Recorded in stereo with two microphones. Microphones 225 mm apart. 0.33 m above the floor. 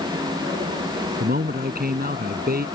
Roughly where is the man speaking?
Right.